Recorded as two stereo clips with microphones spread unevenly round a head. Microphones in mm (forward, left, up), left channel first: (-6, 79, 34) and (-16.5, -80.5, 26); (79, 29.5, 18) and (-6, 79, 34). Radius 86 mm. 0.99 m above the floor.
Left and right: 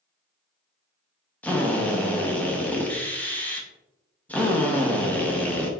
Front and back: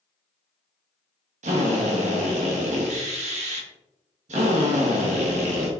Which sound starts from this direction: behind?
A drill, at 1.4 s.